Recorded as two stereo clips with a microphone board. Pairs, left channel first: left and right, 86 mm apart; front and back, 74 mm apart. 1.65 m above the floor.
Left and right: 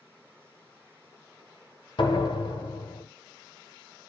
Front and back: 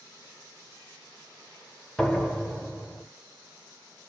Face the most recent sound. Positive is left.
turn(degrees=85)